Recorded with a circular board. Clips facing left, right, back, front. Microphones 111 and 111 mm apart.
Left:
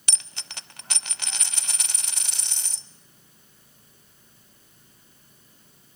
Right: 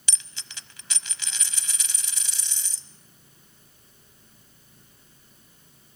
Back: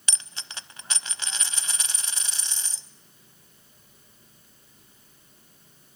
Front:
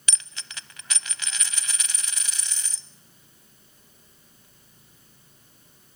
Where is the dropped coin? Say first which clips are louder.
Left 3 dB, back 1 dB; 120° left, 0.5 m.